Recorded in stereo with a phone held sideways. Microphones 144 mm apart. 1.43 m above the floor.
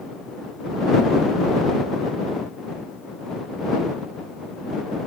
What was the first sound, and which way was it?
Only background noise.